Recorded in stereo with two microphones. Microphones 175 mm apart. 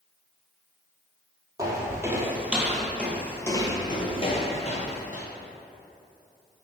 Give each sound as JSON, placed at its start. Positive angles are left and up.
{"t": 1.6, "sound": "footsteps", "side_deg": -20, "distance_m": 1.5}